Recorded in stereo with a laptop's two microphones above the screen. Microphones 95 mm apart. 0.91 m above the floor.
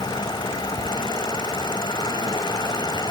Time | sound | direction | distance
0.0 | a fan | 55° left (ahead or behind) | ?